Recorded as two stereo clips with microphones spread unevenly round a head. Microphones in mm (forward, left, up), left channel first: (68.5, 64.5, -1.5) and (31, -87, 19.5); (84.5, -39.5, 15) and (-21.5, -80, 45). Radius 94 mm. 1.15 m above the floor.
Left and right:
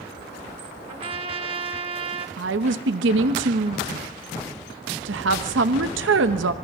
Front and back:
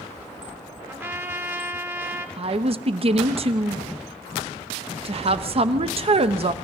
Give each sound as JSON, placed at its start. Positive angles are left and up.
{"t": 0.9, "sound": "a trumpet", "azimuth_deg": -120, "distance_m": 0.9}
{"t": 2.4, "sound": "a woman speaking", "azimuth_deg": -120, "distance_m": 1.0}